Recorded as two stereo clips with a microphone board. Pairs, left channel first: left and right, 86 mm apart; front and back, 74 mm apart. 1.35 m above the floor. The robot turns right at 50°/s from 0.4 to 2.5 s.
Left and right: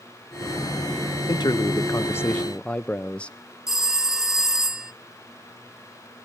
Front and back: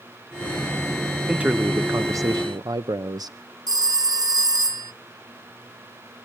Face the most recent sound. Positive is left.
turn(degrees=-175)